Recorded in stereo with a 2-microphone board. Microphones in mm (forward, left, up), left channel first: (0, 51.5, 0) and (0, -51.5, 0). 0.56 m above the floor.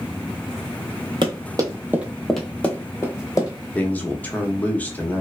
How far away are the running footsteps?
About 0.8 m.